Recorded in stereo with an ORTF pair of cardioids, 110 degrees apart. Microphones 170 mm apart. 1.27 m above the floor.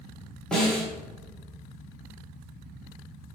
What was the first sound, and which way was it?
A snare drum, 5° left.